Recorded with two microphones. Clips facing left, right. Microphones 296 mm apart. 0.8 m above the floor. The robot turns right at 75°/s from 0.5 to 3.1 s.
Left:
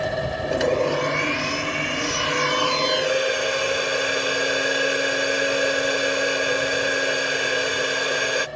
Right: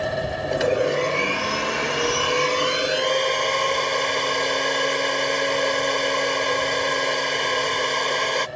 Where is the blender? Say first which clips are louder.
Even; 175° left; by 8.5 s 10° left.